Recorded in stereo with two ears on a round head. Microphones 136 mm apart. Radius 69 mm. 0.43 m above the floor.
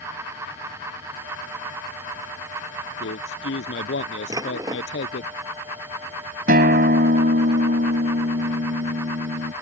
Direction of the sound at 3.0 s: 80° left.